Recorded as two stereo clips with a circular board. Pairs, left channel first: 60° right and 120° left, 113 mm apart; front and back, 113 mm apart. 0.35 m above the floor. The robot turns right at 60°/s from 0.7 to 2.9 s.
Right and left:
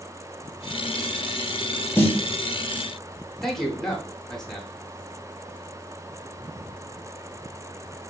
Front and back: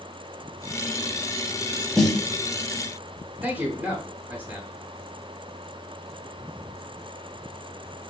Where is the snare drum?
80° right, 0.5 m; by 2.2 s 65° right, 0.5 m.